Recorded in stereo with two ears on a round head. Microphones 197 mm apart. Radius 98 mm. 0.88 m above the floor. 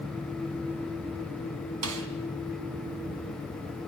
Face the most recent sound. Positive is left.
turn(degrees=-75)  # may be behind; listen again after turning